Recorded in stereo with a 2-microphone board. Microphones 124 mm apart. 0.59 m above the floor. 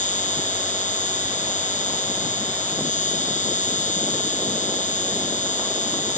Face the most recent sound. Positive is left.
turn(degrees=80)